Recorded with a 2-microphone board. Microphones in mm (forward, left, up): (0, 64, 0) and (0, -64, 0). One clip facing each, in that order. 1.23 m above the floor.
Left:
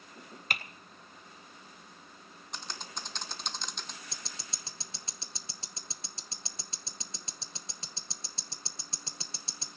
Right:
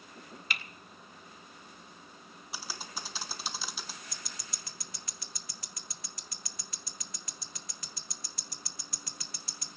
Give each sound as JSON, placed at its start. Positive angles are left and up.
{"t": 0.5, "sound": "typing on a keyboard", "side_deg": 45, "distance_m": 0.7}
{"t": 2.5, "sound": "typing on a keyboard", "side_deg": -5, "distance_m": 0.9}
{"t": 4.1, "sound": "ticking", "side_deg": 30, "distance_m": 0.7}